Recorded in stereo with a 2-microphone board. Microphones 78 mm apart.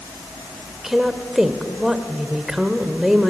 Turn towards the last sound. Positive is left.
turn(degrees=-5)  # may be behind; listen again after turning